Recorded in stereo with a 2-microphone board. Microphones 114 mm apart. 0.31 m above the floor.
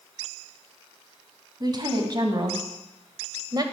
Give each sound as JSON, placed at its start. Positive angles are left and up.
{"t": 1.6, "sound": "a woman speaking", "side_deg": -40, "distance_m": 2.5}